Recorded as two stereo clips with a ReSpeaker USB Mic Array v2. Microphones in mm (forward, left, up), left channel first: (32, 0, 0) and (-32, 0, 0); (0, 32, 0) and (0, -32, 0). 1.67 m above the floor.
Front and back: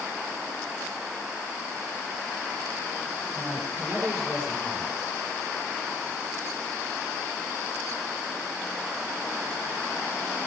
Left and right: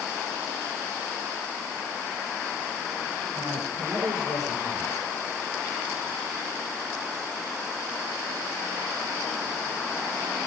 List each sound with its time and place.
3.3 s a man speaking: 90° right, 8.5 m; by 5.1 s 85° right, 7.5 m